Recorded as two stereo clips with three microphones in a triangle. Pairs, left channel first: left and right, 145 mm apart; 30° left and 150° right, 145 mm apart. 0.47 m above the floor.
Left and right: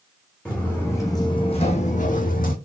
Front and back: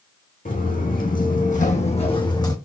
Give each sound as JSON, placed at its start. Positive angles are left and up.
{"t": 0.5, "sound": "footsteps", "azimuth_deg": 5, "distance_m": 1.4}